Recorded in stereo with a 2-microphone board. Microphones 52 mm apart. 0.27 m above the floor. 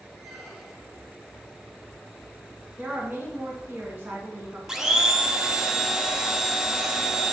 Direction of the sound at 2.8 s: 45° right (ahead or behind).